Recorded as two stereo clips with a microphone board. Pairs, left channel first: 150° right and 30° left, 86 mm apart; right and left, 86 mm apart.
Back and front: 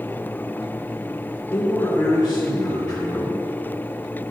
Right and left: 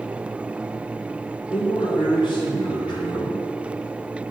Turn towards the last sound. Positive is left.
turn(degrees=-105)